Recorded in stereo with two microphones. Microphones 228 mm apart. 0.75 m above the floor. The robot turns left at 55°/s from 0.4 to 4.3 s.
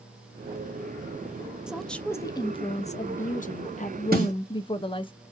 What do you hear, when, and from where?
1.7 s a woman speaking: 175° right, 0.6 m; by 5.1 s 40° left, 0.6 m
4.1 s a snare drum: 40° right (ahead or behind), 1.7 m; by 4.3 s 35° right (ahead or behind), 1.7 m